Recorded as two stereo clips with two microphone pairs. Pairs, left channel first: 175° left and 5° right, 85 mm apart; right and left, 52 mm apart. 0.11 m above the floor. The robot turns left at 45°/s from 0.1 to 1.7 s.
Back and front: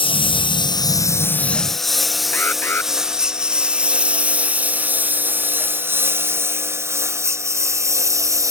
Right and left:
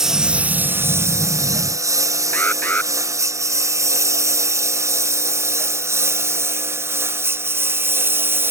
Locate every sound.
0.0 s a lawn mower: 170° left; by 8.5 s 45° left
2.3 s an alarm: 130° right